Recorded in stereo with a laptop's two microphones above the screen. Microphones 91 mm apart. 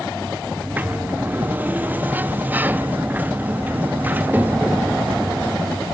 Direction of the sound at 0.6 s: 20° right (ahead or behind).